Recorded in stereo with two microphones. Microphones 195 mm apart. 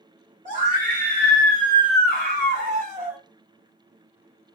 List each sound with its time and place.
0.5 s a scream: 40° right (ahead or behind), 1.7 m; by 3.2 s 35° right (ahead or behind), 1.5 m